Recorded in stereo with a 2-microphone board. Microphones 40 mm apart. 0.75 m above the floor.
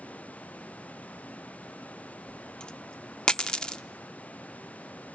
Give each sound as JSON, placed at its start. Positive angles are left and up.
{"t": 2.3, "sound": "a dropped coin", "side_deg": 20, "distance_m": 0.6}